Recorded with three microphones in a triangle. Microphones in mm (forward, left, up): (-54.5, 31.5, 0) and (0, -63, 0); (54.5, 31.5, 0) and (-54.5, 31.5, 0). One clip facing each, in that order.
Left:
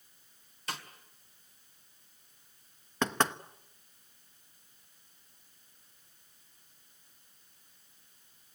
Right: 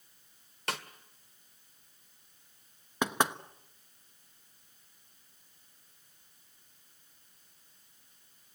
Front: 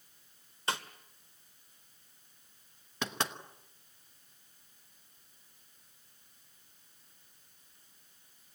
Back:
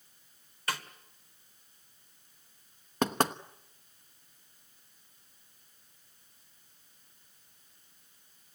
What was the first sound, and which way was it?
A snare drum, 65° right.